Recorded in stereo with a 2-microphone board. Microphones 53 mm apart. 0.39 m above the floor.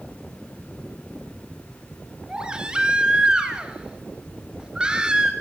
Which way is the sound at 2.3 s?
15° right (ahead or behind).